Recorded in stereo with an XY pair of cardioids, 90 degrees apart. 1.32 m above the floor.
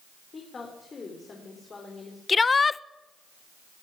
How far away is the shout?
About 0.6 m.